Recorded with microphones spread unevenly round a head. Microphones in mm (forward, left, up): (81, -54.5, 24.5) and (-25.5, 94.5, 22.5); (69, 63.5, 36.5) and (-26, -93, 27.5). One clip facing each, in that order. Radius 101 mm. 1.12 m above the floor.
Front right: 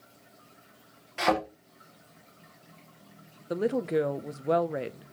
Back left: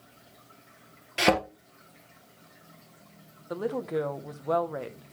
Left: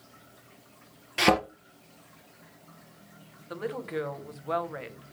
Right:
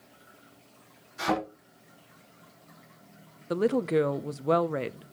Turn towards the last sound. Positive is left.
turn(degrees=-120)